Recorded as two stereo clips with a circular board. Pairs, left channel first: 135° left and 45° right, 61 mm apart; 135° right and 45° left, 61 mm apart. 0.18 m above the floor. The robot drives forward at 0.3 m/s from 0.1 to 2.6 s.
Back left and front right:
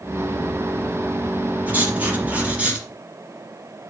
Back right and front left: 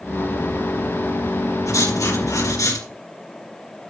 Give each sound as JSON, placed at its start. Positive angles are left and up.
{"t": 1.7, "sound": "writing", "azimuth_deg": -110, "distance_m": 4.5}